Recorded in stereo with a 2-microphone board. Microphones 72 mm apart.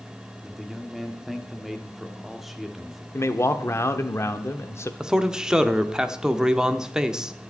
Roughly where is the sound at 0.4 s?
Centre.